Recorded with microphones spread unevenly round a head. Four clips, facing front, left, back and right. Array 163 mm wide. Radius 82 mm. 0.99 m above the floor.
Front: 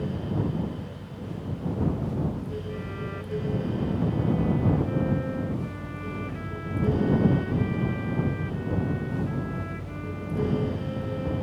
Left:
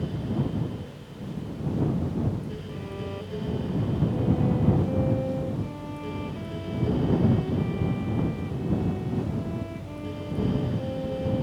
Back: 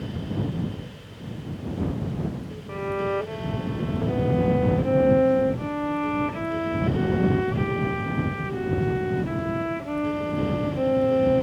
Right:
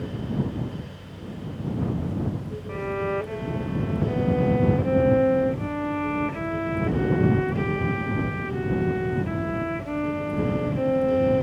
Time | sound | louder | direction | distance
2.7 | a violin | right 13 dB, back 9 dB | 140° right | ?